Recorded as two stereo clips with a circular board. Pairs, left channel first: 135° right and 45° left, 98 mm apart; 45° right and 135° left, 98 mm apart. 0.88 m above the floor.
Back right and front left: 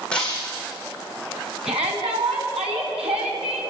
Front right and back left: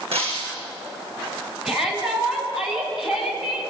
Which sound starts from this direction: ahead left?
A shout, at 1.6 s.